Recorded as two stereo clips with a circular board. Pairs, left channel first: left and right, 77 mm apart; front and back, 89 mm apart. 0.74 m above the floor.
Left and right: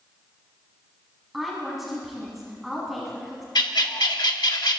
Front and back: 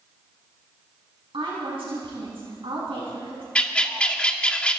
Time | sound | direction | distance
1.3 | a woman speaking | 175° right | 5.5 m
3.5 | a bird | 75° left | 1.2 m